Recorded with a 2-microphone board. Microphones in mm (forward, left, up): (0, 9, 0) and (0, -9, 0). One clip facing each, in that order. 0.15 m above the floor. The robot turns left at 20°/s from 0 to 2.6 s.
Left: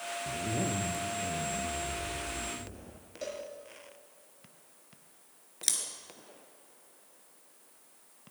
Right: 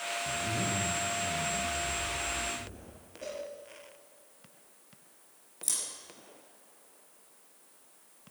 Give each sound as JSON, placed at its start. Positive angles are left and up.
{"t": 0.3, "sound": "a zipper", "azimuth_deg": 100, "distance_m": 1.1}
{"t": 3.2, "sound": "a cowbell", "side_deg": 50, "distance_m": 5.5}
{"t": 5.6, "sound": "scissors", "side_deg": 50, "distance_m": 2.0}